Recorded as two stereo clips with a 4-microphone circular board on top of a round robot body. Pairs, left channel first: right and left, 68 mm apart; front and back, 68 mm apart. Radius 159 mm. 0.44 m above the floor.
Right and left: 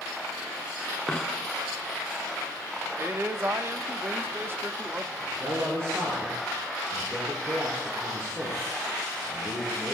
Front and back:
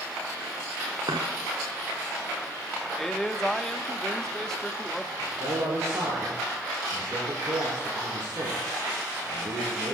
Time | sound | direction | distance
1.1 | a dropped coin | 170° right | 0.5 m
3.0 | a man speaking | 80° left | 1.6 m
5.2 | a man speaking | 140° left | 6.5 m